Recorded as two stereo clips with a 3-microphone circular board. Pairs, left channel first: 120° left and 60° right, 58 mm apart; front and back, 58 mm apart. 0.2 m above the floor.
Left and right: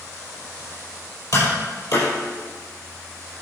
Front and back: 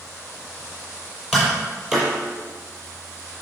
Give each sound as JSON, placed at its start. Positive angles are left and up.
{"t": 1.3, "sound": "tapping", "azimuth_deg": 100, "distance_m": 5.5}